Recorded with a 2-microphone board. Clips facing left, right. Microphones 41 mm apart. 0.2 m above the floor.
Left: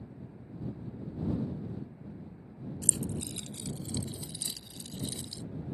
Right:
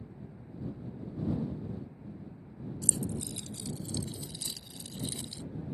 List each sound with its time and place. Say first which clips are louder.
2.8 s keys jangling: even; 50° left (ahead or behind); by 5.4 s 35° right (ahead or behind)